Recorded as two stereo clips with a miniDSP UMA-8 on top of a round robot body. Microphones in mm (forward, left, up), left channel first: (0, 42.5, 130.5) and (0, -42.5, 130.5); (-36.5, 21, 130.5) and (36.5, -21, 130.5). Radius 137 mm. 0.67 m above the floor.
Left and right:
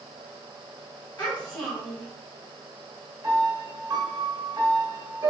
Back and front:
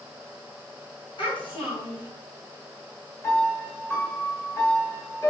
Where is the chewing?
I don't hear chewing.